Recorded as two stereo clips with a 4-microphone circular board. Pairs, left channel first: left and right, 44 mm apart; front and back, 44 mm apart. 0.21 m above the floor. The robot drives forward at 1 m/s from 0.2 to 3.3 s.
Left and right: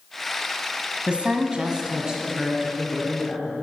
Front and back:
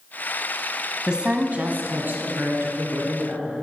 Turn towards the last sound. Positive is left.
turn(degrees=-170)